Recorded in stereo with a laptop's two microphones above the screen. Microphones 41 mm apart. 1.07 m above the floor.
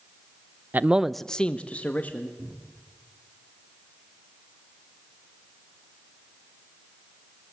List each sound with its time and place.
0.7 s a man speaking: 45° right (ahead or behind), 0.5 m; by 2.3 s 40° left (ahead or behind), 1.8 m
2.4 s a cupboard door: 65° right (ahead or behind), 2.5 m